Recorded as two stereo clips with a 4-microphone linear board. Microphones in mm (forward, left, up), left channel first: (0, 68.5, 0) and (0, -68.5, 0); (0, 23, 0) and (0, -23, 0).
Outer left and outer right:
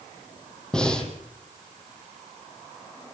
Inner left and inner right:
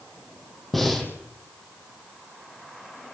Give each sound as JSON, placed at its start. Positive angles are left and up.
{"t": 0.7, "sound": "breathing", "side_deg": 5, "distance_m": 4.5}